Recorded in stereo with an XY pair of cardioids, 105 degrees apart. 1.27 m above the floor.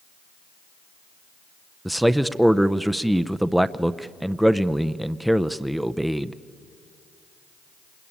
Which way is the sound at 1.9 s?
5° right.